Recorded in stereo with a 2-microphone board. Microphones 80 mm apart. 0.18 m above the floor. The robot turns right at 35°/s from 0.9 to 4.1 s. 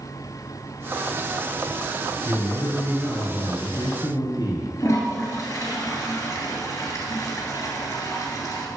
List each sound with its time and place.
2.2 s a man speaking: 25° left, 2.5 m; by 4.7 s 90° left, 2.5 m
4.8 s a toilet flushing: 40° left (ahead or behind), 2.5 m